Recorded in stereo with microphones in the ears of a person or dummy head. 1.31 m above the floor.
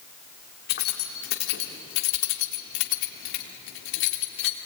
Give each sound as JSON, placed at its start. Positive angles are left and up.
{"t": 0.7, "sound": "keys jangling", "side_deg": 60, "distance_m": 2.5}